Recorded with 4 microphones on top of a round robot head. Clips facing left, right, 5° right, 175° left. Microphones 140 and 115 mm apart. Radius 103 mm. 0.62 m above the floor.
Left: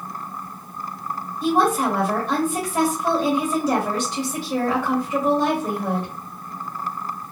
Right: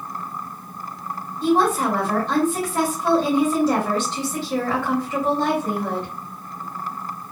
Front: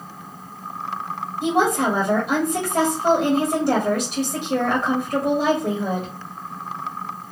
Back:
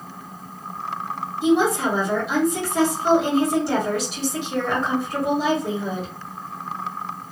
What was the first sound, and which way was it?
A woman speaking, 10° left.